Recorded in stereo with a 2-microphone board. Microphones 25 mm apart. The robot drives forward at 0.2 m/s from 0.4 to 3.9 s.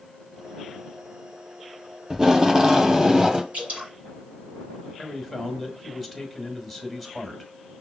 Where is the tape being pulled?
25° right (ahead or behind), 1.0 m; by 3.4 s 30° right (ahead or behind), 0.8 m.